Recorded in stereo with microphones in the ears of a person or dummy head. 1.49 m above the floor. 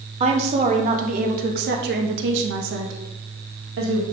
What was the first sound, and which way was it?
A woman speaking, 35° right (ahead or behind).